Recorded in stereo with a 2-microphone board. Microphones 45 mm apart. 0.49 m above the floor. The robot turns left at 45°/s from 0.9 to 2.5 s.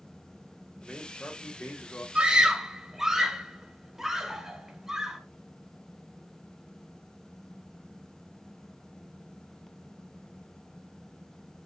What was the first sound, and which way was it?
A man speaking, 160° left.